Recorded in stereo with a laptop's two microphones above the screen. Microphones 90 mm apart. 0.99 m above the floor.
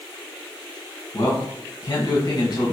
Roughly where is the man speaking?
Left.